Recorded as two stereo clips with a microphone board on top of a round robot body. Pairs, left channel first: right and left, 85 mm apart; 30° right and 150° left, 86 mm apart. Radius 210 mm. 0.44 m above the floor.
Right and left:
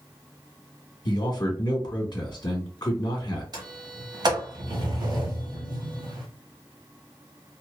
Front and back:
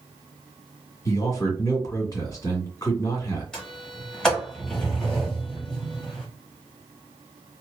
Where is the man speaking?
70° right, 1.8 m.